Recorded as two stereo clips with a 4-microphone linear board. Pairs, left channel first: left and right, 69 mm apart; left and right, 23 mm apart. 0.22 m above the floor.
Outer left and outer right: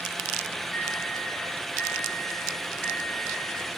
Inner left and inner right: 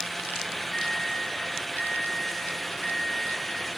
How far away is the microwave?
About 3 m.